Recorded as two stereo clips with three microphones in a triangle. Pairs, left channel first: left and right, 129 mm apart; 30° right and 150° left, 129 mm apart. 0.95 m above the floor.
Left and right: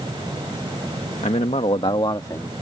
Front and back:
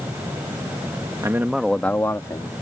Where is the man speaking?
90° left; by 2.5 s 25° left.